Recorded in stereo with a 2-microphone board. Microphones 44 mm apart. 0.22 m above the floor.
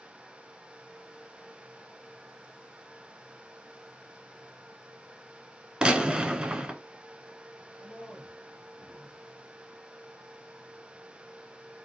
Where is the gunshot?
20° right (ahead or behind), 0.5 m.